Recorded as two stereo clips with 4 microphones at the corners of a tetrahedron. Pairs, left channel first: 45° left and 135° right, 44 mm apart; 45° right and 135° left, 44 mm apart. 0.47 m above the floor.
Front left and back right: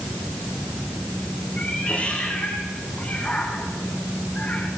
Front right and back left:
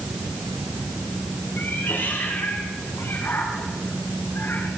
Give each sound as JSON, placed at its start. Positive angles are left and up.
{"t": 1.6, "sound": "a cat meowing", "azimuth_deg": -15, "distance_m": 8.5}